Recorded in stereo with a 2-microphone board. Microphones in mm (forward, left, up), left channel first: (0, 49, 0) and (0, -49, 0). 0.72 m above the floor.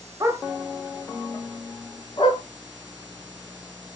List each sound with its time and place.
0.2 s a dog barking: 30° right (ahead or behind), 0.9 m; by 2.4 s 65° left (ahead or behind), 1.5 m